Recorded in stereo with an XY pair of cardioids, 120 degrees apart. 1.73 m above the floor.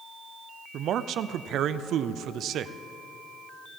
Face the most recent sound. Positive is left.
turn(degrees=-60)